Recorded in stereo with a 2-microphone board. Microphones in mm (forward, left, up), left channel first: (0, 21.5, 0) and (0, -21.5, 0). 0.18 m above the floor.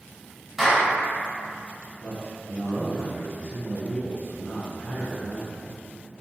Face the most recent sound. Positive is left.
turn(degrees=40)  # may be behind; listen again after turning